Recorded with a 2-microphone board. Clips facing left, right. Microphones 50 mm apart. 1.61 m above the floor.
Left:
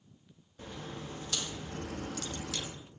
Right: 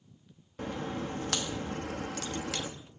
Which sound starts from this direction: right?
A crack, at 0.6 s.